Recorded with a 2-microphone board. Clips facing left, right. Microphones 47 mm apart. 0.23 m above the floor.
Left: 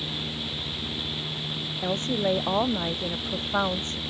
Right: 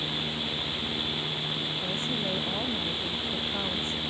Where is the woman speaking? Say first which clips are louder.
Left 9 dB; 60° left (ahead or behind); by 4.0 s 65° left (ahead or behind).